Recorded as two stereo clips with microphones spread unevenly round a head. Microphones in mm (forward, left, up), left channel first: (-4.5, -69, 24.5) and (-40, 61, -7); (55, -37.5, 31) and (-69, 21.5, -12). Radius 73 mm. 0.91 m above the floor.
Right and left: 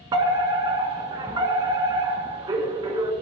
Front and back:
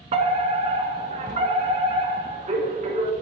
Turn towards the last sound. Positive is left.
turn(degrees=150)